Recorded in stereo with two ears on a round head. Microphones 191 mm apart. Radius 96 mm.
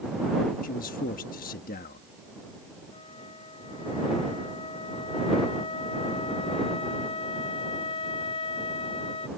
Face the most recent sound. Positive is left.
turn(degrees=25)  # may be behind; listen again after turning